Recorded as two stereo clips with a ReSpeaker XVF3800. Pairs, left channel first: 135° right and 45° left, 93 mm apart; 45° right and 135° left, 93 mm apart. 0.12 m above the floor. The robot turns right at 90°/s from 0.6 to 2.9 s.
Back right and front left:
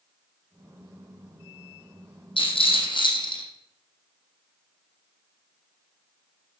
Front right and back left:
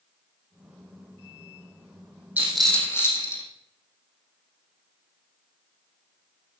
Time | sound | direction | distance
2.4 | a rattle | 155° right | 3.5 m